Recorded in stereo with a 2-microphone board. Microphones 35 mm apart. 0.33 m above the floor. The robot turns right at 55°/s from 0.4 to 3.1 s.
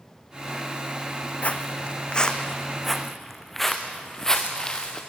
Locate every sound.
1.4 s footsteps: 40° left (ahead or behind), 1.4 m; by 5.0 s 20° left (ahead or behind), 3 m